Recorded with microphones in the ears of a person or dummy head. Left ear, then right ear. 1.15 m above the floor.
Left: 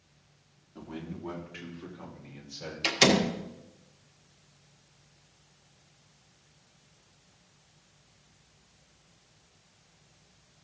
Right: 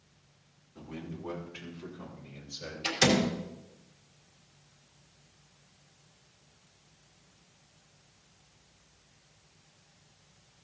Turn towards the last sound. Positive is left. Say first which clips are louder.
# left 3 dB
turn(degrees=50)  # may be behind; listen again after turning